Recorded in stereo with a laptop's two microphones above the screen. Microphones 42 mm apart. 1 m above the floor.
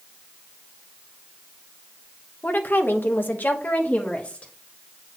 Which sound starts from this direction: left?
A woman speaking, at 2.4 s.